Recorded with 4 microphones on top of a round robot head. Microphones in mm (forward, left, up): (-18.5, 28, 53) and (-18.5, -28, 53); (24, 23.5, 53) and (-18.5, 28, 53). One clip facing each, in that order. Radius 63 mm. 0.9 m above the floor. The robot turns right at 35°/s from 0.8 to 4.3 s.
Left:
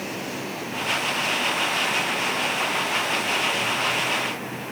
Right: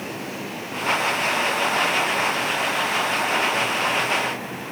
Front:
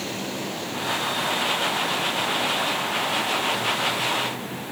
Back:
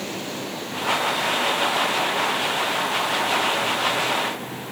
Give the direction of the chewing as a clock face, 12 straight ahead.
No chewing in this recording.